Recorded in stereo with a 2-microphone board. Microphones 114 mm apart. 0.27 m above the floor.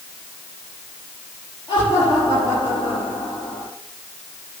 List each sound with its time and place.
1.7 s laughter: 55° left (ahead or behind), 6.5 m; by 3.7 s 50° left (ahead or behind), 7.5 m